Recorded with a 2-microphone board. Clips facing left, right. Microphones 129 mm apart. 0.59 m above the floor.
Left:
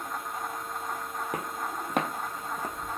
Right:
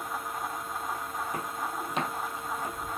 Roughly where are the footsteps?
Left.